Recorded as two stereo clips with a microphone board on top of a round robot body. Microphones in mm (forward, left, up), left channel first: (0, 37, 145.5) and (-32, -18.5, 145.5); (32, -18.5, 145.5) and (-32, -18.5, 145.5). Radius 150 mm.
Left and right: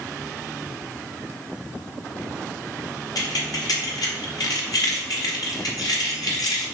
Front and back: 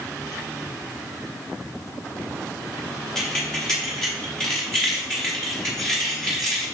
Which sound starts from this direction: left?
Keys jangling, at 3.1 s.